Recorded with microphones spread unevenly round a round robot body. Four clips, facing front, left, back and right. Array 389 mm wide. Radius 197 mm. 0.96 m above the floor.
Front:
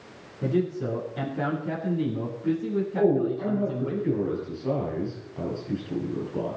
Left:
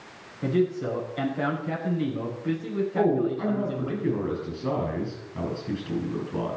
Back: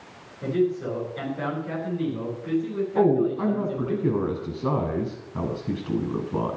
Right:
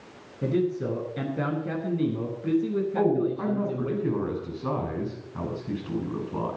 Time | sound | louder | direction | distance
0.4 | a man speaking | left 1 dB, back 2 dB | 65° right | 5.5 m
3.0 | a man speaking | left 1 dB, back 3 dB | 175° right | 7.5 m